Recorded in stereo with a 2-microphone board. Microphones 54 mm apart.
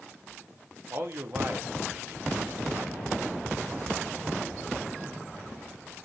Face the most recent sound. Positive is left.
turn(degrees=-45)  # may be behind; listen again after turning